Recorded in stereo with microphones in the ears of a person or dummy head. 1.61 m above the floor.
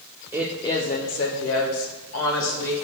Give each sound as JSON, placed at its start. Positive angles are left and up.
{"t": 0.3, "sound": "a woman speaking", "side_deg": -15, "distance_m": 0.6}